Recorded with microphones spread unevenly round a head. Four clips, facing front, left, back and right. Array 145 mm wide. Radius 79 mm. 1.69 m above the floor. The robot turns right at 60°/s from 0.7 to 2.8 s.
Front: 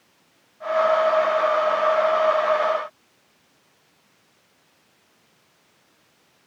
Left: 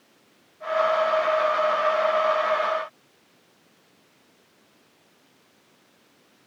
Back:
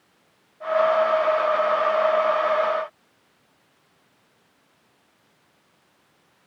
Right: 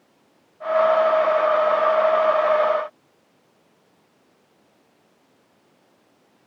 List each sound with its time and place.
Only background noise.